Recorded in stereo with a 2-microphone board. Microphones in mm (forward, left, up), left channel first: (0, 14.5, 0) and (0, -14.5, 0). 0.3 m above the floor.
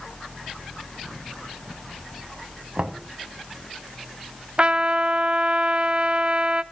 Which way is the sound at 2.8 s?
45° right (ahead or behind).